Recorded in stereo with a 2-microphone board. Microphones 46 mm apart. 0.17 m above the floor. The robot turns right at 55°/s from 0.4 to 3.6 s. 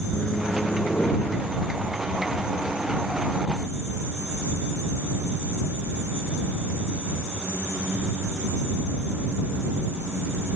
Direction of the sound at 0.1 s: 25° left.